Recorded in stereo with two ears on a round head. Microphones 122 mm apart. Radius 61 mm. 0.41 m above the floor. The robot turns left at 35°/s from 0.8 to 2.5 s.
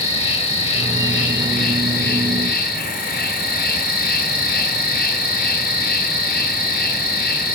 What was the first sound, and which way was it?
An insect, 130° left.